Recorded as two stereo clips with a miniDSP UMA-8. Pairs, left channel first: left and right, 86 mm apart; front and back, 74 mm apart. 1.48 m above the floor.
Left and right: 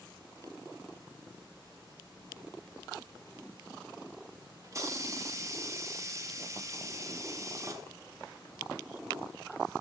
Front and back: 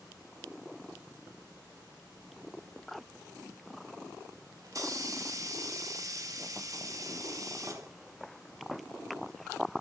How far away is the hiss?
About 1.0 m.